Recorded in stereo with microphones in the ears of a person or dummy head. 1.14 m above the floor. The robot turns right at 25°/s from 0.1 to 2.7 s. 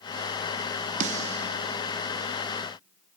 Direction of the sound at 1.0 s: 45° right (ahead or behind).